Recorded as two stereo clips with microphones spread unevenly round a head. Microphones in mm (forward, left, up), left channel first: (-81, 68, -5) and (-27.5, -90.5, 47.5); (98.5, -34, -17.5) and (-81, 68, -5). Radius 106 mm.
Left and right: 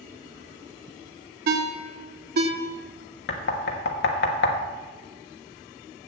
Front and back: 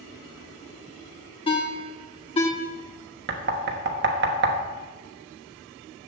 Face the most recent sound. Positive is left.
turn(degrees=110)